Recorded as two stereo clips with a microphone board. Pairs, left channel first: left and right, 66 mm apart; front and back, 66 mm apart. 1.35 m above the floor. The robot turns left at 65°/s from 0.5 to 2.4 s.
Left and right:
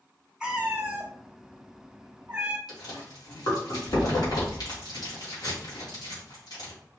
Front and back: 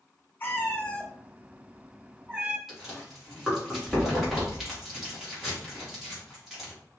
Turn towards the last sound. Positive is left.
turn(degrees=95)